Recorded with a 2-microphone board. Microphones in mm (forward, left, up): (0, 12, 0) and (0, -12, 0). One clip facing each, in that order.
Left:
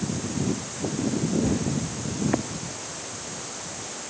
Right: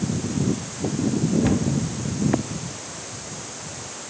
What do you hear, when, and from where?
1.4 s a cupboard door: 80° right, 2 m